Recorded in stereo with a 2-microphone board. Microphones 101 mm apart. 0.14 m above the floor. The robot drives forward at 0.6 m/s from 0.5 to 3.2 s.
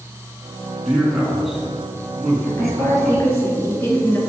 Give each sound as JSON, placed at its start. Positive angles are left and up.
{"t": 0.8, "sound": "a man speaking", "side_deg": -5, "distance_m": 1.7}
{"t": 2.6, "sound": "a woman speaking", "side_deg": 35, "distance_m": 2.5}